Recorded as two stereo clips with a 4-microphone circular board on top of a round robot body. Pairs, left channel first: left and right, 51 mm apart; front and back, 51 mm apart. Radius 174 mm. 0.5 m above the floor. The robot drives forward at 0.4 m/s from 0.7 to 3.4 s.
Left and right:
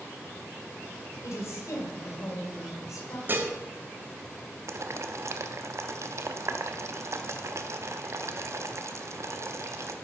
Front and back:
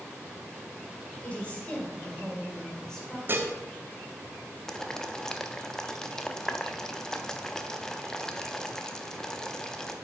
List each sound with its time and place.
1.2 s a woman speaking: 65° left, 2.5 m; by 3.2 s 85° left, 2.5 m
3.3 s dishes clattering: 135° right, 1.0 m; by 3.5 s 140° right, 1.1 m
4.7 s boiling: 75° right, 0.7 m